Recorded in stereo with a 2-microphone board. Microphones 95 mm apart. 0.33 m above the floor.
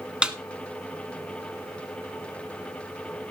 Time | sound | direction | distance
0.2 | a snare drum | 10° right (ahead or behind) | 1.0 m